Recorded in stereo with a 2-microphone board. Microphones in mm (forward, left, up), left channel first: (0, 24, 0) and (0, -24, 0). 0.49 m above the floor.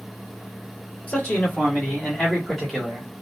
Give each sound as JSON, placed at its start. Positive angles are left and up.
{"t": 1.1, "sound": "a man speaking", "side_deg": 35, "distance_m": 1.9}